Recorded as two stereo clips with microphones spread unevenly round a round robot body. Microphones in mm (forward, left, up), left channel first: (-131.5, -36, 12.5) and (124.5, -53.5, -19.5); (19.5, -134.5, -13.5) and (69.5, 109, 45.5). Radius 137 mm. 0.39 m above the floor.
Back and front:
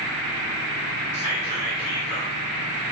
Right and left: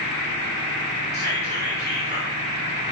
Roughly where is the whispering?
Behind left.